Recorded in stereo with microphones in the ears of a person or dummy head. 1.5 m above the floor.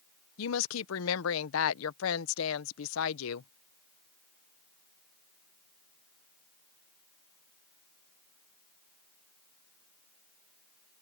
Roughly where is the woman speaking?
Left.